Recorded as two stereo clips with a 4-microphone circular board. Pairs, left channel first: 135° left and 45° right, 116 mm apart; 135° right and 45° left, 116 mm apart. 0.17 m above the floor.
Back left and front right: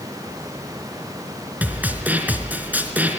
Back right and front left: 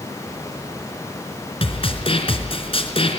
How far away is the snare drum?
About 2.5 m.